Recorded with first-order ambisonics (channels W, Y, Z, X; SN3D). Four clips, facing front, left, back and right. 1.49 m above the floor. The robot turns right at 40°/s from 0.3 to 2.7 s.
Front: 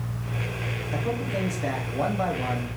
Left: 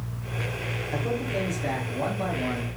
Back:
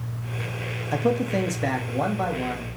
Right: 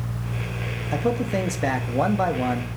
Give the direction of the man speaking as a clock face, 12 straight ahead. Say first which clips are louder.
Right 6 dB, back 7 dB; 5 o'clock.